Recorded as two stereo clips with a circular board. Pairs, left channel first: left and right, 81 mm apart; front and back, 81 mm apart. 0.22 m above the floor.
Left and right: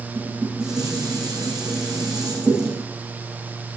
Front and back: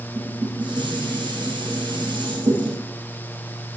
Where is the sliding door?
I don't hear a sliding door.